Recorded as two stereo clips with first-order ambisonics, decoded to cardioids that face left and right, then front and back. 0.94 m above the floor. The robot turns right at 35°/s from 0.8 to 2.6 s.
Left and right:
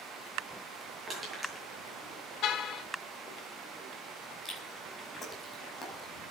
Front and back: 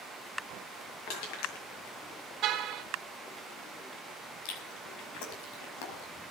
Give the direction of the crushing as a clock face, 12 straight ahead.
1 o'clock.